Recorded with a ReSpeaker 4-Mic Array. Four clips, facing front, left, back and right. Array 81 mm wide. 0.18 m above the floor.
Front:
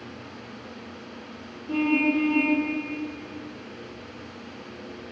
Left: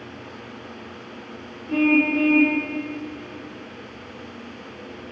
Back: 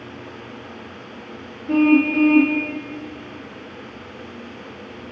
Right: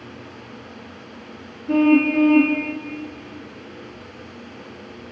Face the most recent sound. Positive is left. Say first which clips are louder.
# right 4 dB, back 8 dB
turn(degrees=-125)